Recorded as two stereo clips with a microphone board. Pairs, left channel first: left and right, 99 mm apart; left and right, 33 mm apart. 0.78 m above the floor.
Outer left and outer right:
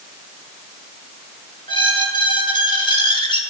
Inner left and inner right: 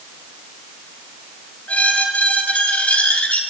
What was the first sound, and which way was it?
A squeak, 55° left (ahead or behind).